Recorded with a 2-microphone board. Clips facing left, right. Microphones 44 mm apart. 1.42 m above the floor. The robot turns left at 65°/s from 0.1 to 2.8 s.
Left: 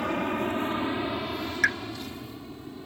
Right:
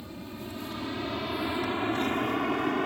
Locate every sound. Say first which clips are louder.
0.0 s an aircraft: left 13 dB; 70° left (ahead or behind); by 2.9 s 70° right (ahead or behind)
1.6 s a pop: left 7 dB; 85° left